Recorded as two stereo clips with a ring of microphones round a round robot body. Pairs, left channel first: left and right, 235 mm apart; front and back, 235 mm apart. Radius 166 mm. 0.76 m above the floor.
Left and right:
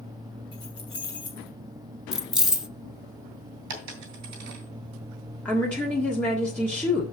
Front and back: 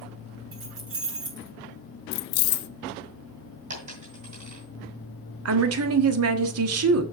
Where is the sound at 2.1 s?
Straight ahead, 0.6 m.